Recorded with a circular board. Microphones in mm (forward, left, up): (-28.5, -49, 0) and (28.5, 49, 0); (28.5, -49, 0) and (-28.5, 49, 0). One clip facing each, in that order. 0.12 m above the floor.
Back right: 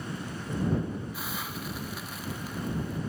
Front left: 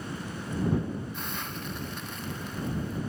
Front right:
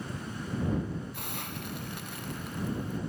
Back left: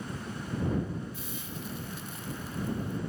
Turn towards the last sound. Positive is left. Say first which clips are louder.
# even, front right 1 dB
turn(degrees=-35)